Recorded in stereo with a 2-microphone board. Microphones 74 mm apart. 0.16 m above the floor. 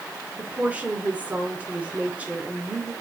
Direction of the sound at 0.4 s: 20° right (ahead or behind).